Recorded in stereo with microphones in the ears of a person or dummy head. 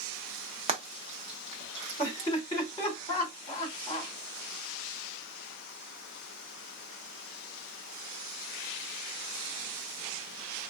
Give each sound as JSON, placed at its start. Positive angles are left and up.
{"t": 0.7, "sound": "frying", "side_deg": -30, "distance_m": 1.0}
{"t": 2.0, "sound": "laughter", "side_deg": 20, "distance_m": 2.5}